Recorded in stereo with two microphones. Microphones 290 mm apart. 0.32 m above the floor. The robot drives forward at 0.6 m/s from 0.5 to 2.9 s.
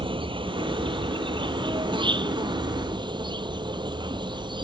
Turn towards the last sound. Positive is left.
turn(degrees=-15)  # may be behind; listen again after turning